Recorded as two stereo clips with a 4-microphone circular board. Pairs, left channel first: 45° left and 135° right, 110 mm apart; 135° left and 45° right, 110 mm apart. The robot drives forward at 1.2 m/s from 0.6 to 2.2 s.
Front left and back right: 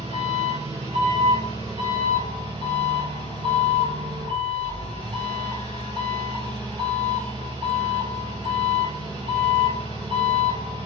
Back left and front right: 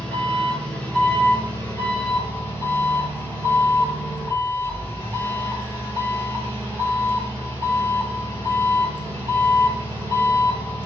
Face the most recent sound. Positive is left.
turn(degrees=-155)